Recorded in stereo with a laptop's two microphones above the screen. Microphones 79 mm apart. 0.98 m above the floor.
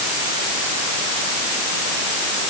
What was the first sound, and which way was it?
Only background noise.